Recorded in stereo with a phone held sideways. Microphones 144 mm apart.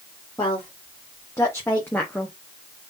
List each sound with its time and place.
0.4 s a woman speaking: 25° left (ahead or behind), 1.8 m; by 2.4 s centre (ahead or behind), 0.8 m